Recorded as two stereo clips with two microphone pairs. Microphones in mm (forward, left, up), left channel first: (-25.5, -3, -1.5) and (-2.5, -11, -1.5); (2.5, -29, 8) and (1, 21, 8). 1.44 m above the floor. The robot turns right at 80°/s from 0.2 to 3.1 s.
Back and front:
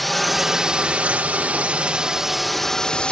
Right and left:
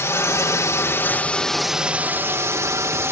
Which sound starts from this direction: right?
A drone, at 0.0 s.